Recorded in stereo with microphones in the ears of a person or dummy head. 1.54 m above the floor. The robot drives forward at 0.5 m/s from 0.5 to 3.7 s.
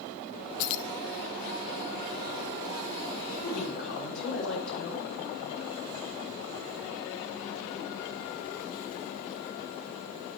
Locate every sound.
0.6 s keys jangling: 50° left (ahead or behind), 0.6 m
3.4 s a woman speaking: 65° left (ahead or behind), 6.5 m